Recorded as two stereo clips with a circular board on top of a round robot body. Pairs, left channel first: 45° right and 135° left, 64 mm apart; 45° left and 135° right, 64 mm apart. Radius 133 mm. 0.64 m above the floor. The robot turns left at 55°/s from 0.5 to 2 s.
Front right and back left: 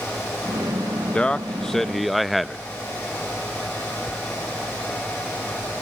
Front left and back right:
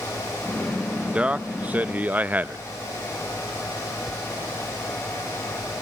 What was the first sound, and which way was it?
A man speaking, 90° right.